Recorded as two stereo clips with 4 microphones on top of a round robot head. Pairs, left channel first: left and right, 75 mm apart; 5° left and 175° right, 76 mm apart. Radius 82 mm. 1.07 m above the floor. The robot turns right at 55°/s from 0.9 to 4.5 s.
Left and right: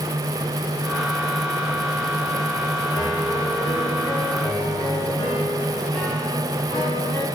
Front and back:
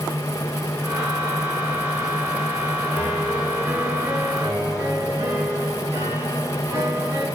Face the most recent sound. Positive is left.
turn(degrees=155)